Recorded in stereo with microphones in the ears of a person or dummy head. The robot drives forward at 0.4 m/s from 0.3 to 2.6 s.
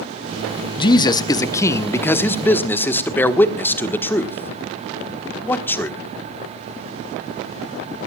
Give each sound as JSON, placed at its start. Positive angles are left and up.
{"t": 0.8, "sound": "a man speaking", "side_deg": 25, "distance_m": 0.6}